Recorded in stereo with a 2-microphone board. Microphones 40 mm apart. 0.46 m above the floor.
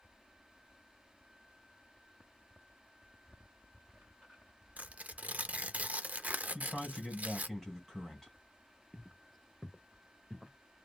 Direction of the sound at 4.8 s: 45° right (ahead or behind).